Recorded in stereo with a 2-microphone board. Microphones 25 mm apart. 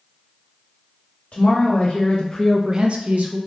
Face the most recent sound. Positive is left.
turn(degrees=-70)  # may be behind; listen again after turning